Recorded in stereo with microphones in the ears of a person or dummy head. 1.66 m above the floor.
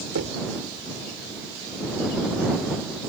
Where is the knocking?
75° right (ahead or behind).